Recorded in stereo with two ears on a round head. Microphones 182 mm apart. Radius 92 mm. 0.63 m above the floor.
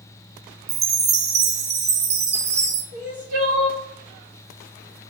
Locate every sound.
0.7 s a chime: 30° right (ahead or behind), 0.7 m
2.9 s crying: 40° right (ahead or behind), 1.6 m